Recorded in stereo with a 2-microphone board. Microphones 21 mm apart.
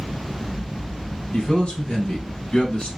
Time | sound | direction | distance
1.3 | a man speaking | 60° left (ahead or behind) | 3 m